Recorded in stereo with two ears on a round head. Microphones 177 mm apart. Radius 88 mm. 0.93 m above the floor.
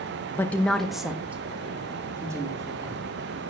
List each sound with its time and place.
0.3 s a woman speaking: 10° left (ahead or behind), 1.0 m; by 3.1 s 20° right (ahead or behind), 3 m